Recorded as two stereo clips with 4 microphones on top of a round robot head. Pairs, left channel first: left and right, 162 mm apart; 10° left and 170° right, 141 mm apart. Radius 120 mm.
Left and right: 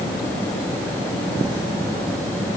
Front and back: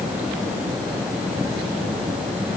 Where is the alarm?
No alarm in this recording.